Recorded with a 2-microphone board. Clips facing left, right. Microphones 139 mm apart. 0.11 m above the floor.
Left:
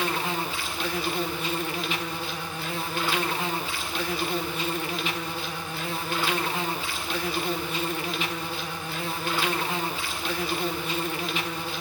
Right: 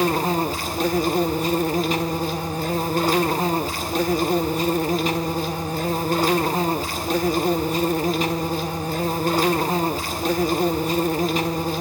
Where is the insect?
40° right (ahead or behind), 1.5 m.